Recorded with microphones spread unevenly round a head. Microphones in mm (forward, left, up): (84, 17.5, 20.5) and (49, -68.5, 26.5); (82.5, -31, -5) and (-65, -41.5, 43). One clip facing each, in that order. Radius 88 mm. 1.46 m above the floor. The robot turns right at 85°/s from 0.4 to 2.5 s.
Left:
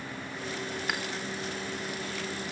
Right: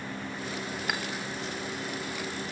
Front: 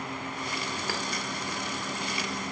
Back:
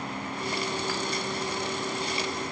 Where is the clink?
25° right, 1.9 m; by 1.0 s 15° right, 1.9 m.